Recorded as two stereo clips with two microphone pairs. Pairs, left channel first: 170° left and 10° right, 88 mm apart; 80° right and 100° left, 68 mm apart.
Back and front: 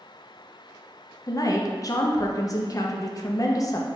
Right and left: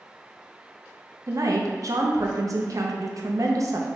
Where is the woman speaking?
125° left, 0.7 m.